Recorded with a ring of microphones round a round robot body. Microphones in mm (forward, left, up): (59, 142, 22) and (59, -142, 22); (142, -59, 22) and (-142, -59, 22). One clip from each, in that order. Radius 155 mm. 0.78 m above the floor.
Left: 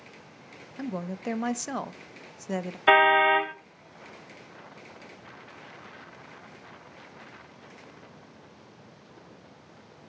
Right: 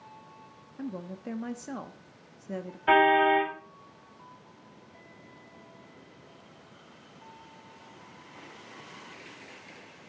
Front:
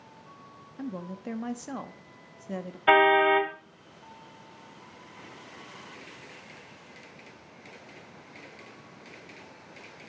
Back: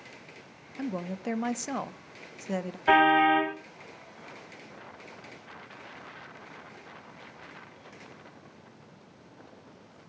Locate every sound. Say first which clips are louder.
0.8 s a woman speaking: left 5 dB, back 4 dB; 115° left, 0.9 m
2.9 s a car horn: left 2 dB, front 1 dB; 65° left, 2 m